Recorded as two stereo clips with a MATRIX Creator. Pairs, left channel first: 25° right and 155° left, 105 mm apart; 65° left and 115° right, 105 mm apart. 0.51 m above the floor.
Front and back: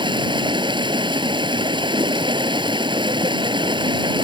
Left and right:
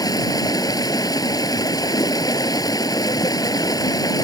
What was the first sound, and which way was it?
Running water, 120° left.